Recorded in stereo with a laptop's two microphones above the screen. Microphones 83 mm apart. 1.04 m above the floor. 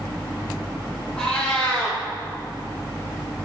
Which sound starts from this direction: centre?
A cat meowing, at 1.2 s.